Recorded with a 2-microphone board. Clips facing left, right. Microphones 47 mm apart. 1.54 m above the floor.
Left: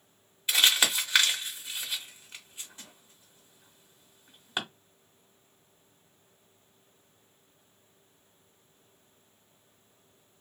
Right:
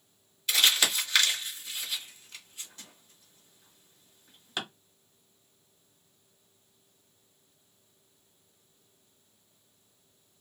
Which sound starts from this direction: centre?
Crumpling, at 0.5 s.